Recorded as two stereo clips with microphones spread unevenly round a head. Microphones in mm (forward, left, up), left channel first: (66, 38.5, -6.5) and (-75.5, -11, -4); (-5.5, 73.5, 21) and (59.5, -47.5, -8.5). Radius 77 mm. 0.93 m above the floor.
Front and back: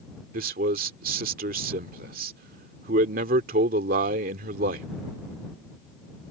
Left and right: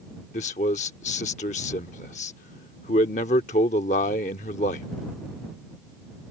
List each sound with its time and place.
0.3 s a man speaking: 170° left